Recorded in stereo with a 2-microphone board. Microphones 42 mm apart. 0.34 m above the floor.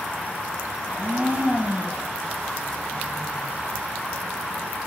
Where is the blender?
40° right (ahead or behind), 8.5 m.